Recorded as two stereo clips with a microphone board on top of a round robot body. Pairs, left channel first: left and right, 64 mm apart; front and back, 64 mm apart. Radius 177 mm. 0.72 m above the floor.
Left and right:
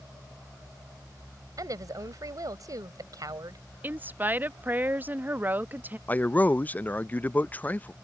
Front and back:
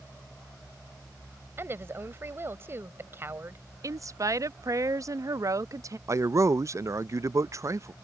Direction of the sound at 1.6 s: 125° right.